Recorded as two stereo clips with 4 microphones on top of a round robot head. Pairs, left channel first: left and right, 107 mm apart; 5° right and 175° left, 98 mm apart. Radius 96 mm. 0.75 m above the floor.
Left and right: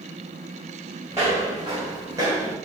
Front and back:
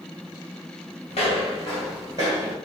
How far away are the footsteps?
About 0.9 m.